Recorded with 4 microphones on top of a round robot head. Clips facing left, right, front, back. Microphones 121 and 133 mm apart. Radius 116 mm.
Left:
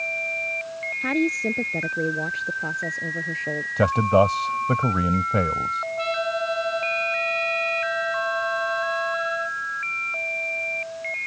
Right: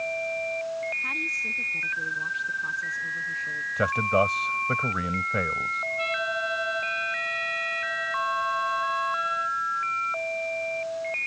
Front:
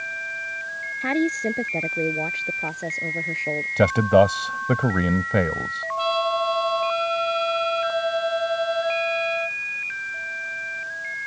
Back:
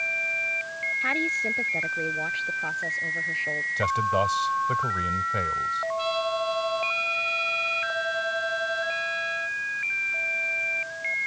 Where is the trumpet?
25° left.